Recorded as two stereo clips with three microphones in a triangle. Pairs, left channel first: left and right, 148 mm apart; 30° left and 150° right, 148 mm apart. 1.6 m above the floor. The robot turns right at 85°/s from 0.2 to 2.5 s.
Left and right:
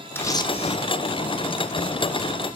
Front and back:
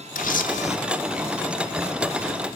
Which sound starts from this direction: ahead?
A camera shutter, at 0.1 s.